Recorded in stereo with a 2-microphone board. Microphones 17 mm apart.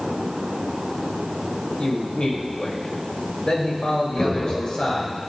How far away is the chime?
No chime in this recording.